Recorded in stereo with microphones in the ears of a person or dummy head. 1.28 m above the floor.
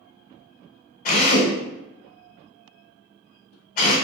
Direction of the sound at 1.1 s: 40° left (ahead or behind).